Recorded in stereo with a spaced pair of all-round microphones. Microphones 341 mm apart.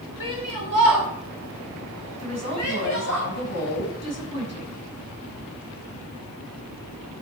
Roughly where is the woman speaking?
Left.